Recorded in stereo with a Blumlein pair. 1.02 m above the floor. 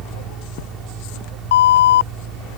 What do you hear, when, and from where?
0.0 s a fan: 25° right
1.5 s an alarm: 60° left